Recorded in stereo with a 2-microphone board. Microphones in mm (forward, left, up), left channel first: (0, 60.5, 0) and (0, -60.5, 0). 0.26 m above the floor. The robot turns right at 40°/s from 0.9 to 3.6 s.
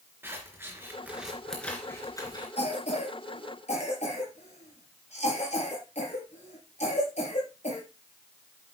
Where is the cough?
65° left (ahead or behind), 4.5 m; by 7.8 s 70° left (ahead or behind), 4.5 m.